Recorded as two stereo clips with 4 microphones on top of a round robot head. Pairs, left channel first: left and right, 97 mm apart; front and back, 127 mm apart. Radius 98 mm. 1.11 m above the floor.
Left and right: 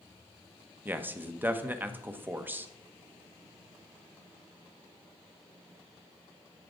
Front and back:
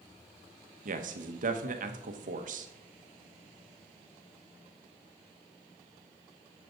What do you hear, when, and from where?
0.8 s a man speaking: 160° right, 1.2 m